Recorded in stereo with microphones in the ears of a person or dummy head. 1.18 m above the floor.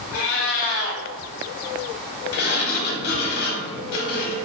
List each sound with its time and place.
0.1 s a cat meowing: 55° left (ahead or behind), 0.7 m
2.3 s a sliding door: 50° left (ahead or behind), 0.8 m